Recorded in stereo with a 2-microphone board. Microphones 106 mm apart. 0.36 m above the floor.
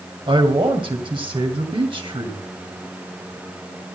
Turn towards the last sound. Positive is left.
turn(degrees=-55)  # may be behind; listen again after turning